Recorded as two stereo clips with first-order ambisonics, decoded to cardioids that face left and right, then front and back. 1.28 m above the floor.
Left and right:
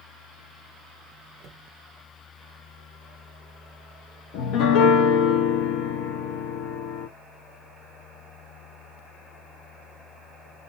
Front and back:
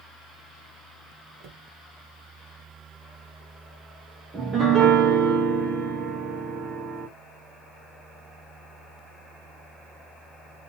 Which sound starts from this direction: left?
A piano, at 4.3 s.